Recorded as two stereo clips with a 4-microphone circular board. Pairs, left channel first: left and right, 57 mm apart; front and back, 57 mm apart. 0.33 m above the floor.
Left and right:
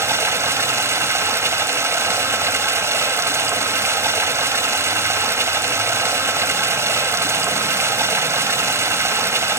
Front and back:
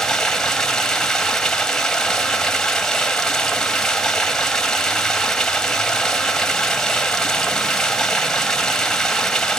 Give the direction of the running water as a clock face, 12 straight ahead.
3 o'clock.